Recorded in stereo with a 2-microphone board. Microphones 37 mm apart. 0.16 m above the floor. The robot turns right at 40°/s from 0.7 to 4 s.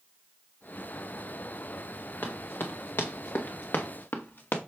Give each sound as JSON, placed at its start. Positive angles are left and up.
{"t": 2.2, "sound": "running footsteps", "side_deg": 80, "distance_m": 2.5}